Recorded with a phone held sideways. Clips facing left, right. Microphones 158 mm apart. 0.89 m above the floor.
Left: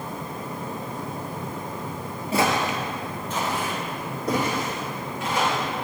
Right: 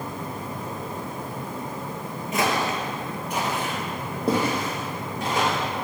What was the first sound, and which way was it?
Footsteps, 35° left (ahead or behind).